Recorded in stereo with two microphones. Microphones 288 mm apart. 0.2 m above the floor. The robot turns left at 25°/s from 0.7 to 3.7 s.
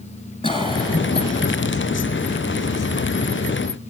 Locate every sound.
0.4 s a cough: 15° left (ahead or behind), 1.6 m; by 1.5 s 20° left (ahead or behind), 1.6 m